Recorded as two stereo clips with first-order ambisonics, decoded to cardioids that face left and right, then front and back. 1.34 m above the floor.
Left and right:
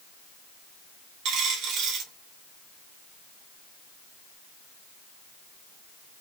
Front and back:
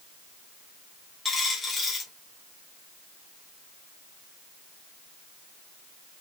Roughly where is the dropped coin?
Right.